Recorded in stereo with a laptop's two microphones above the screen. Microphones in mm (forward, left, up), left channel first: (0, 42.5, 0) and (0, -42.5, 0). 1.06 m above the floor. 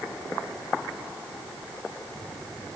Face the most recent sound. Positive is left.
No sound to turn to.